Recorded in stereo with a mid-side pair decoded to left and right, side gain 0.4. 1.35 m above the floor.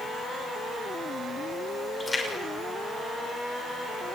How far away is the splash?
About 6.5 m.